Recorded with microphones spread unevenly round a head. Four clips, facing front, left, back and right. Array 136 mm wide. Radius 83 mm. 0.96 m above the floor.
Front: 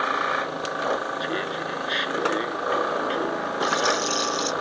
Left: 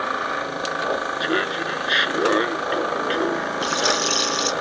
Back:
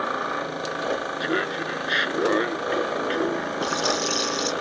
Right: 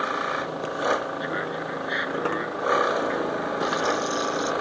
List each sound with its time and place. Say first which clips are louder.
1.2 s laughter: left 5 dB, back 2 dB; 140° left; by 3.5 s 145° left
3.6 s a rattle: left 1 dB, front 3 dB; 140° left